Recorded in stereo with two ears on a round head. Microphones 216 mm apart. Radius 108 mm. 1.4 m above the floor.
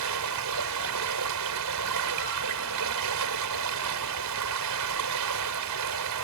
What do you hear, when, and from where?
0.0 s running water: 80° right